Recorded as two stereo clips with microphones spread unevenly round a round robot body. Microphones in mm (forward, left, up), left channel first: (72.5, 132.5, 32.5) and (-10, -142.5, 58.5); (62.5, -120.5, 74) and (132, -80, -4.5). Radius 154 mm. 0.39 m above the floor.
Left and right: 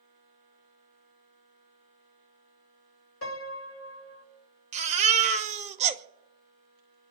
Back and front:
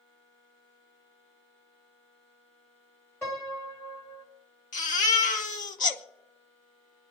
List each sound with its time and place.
3.2 s a piano: 105° left, 1.8 m
4.7 s a baby crying: 175° right, 0.7 m